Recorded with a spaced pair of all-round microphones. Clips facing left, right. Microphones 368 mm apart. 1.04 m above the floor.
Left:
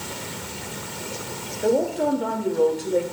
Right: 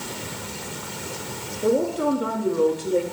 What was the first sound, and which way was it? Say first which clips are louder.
A woman speaking: even; 10° right (ahead or behind).